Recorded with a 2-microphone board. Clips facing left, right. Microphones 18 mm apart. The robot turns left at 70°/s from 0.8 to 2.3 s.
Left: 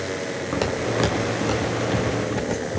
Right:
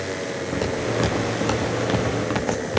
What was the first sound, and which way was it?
Footsteps, 30° left (ahead or behind).